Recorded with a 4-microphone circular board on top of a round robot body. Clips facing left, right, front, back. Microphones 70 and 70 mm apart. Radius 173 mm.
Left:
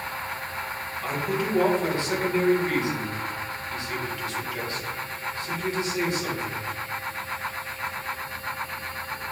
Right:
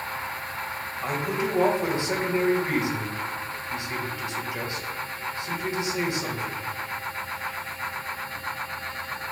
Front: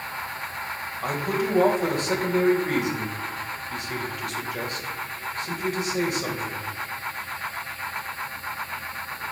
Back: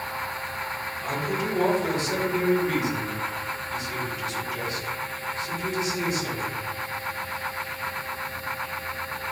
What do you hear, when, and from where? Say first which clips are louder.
1.0 s a man speaking: even, front 3 dB; 20° right, 3 m